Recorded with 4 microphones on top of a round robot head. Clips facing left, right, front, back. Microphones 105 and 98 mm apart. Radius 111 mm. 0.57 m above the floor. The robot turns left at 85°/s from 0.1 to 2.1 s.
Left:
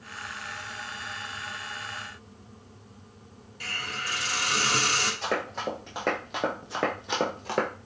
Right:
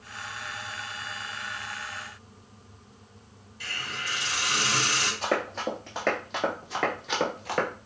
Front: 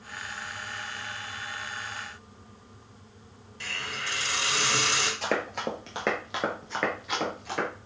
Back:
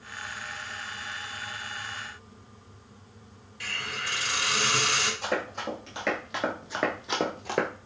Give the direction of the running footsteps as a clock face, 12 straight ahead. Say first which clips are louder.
Right 2 dB, front 1 dB; 12 o'clock.